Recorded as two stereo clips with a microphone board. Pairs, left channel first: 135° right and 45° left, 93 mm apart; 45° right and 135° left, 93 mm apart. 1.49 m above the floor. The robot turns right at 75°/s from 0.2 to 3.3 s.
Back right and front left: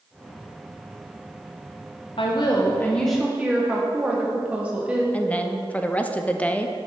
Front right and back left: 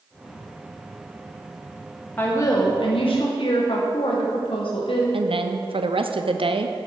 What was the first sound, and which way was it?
A woman speaking, 115° right.